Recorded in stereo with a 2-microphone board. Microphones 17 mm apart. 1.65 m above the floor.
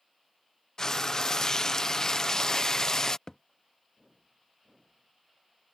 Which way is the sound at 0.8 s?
30° left (ahead or behind).